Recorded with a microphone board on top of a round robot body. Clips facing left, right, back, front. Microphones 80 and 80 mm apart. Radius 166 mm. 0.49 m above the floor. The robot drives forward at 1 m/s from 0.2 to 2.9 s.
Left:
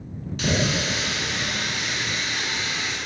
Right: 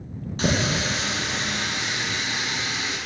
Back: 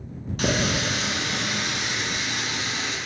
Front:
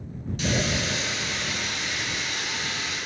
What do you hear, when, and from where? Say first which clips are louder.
0.4 s a running tap: even, back 3 dB; 145° right, 4.5 m; by 3.0 s 155° right, 7 m